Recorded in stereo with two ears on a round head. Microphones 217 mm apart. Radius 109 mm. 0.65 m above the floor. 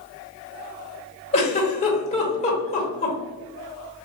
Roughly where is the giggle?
Left.